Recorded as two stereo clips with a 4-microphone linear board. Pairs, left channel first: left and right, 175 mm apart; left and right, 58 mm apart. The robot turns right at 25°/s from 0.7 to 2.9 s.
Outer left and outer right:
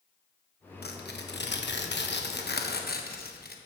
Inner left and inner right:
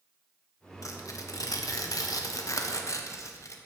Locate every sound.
0.8 s tearing paper: 65° left (ahead or behind), 1.2 m; by 3.6 s 60° left (ahead or behind), 1.2 m